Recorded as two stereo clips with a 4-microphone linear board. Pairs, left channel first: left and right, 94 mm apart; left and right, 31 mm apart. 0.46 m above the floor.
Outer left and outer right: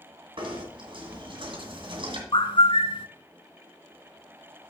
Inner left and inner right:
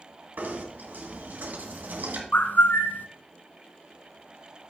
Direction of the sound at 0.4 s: 65° right (ahead or behind).